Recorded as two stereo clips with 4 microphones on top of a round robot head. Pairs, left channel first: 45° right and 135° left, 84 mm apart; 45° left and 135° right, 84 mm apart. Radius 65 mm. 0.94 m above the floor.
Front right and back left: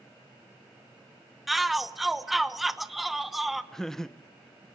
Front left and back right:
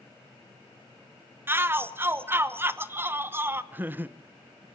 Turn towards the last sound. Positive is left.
turn(degrees=-125)